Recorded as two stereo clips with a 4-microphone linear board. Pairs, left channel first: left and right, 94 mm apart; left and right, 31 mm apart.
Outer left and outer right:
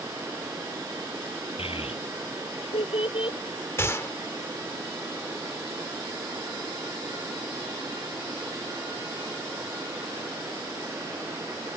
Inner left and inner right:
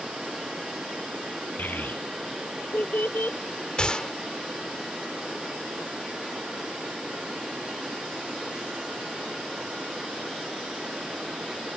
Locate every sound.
1.6 s a child speaking: 85° left; by 3.4 s 75° left (ahead or behind)
3.8 s a gunshot: 30° left (ahead or behind)